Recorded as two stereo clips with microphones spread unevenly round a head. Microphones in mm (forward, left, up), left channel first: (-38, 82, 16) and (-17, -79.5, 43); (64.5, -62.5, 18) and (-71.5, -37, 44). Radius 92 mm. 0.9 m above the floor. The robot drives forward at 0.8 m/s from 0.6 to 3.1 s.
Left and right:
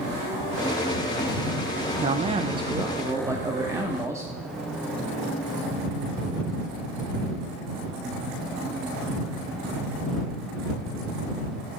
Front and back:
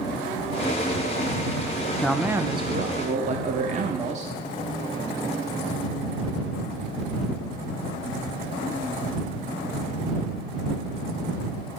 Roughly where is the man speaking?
Ahead right.